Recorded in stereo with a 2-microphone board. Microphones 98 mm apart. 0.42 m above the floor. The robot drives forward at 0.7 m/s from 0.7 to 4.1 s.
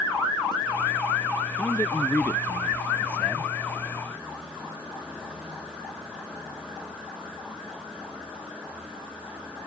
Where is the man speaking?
15° left (ahead or behind); by 3.5 s 20° left (ahead or behind).